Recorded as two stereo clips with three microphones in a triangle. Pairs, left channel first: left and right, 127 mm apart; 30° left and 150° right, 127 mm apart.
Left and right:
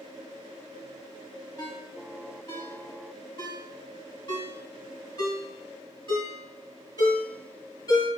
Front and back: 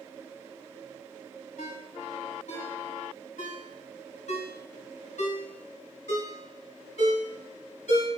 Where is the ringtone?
40° left, 1.6 m.